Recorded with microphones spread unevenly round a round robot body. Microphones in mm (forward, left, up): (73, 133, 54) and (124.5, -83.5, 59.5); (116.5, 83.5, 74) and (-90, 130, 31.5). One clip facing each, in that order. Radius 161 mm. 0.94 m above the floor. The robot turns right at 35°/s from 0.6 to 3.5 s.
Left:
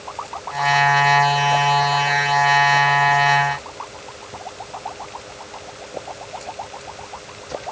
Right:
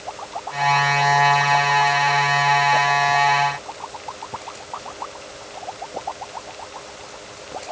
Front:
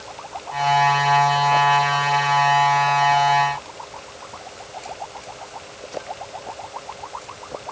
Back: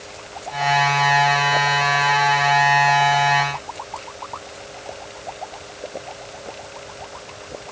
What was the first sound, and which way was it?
Only background noise.